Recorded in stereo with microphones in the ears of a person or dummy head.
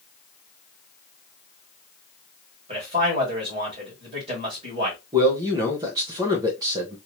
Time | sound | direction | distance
2.7 | a man speaking | 35° right (ahead or behind) | 2.5 m
5.1 | a man speaking | 20° right (ahead or behind) | 1.0 m